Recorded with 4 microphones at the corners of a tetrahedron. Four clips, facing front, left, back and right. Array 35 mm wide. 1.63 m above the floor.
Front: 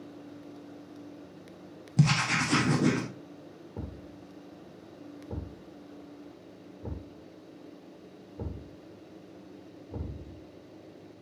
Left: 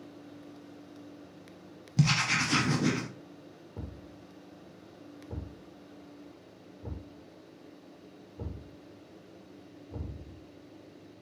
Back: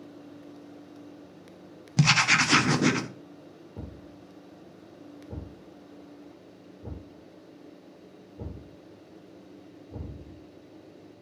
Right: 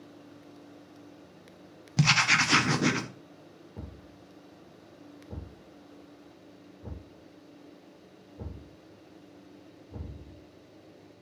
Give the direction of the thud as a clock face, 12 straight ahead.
12 o'clock.